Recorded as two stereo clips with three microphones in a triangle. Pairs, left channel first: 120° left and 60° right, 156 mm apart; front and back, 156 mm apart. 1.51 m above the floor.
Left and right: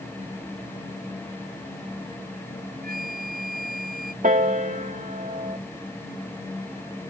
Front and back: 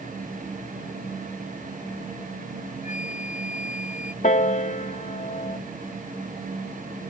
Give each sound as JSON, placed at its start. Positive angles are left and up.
{"t": 2.8, "sound": "a flute", "azimuth_deg": -40}
{"t": 4.2, "sound": "a piano", "azimuth_deg": -30}